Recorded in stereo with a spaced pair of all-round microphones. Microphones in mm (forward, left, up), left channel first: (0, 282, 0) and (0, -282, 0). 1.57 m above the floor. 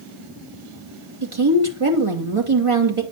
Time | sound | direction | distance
1.2 | a woman speaking | 60° right (ahead or behind) | 2.5 m